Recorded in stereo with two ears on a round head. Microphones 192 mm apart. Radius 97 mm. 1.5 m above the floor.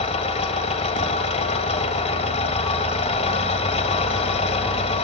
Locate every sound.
0.0 s an engine running: 30° left (ahead or behind), 2.5 m